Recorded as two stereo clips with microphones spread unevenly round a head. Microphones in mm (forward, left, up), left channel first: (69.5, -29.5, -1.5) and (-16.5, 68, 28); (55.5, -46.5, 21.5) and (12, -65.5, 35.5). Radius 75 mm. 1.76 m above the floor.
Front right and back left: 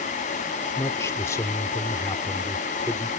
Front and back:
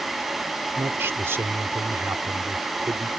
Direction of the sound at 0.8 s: 125° right.